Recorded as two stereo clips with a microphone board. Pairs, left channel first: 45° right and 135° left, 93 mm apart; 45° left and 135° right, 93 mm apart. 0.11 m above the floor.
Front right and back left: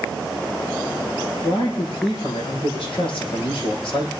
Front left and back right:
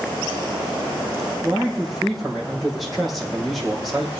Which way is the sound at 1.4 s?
45° right.